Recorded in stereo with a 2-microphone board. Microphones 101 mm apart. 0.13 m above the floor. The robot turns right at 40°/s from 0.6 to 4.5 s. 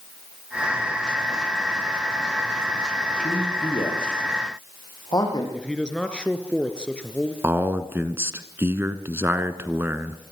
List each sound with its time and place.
3.2 s a man speaking: 80° left, 8 m; by 5.4 s 40° left (ahead or behind), 8 m
5.5 s a man speaking: 10° left (ahead or behind), 2.5 m
7.4 s a man speaking: 25° right (ahead or behind), 1.6 m